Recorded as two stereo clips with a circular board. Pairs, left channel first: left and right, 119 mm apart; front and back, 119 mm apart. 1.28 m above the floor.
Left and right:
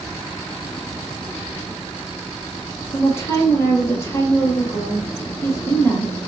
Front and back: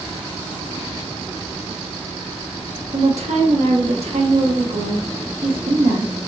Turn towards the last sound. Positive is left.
turn(degrees=160)